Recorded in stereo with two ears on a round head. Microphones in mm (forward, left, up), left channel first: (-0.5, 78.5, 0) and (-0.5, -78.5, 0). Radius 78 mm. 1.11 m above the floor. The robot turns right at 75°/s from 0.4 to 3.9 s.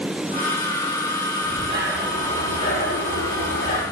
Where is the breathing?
50° right, 6.5 m; by 3.8 s 130° left, 6.5 m.